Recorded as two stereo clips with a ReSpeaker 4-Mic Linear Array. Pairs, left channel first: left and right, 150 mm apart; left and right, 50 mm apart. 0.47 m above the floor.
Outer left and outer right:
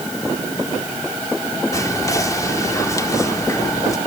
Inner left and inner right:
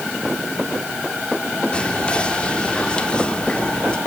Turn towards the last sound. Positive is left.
turn(degrees=20)  # may be behind; listen again after turning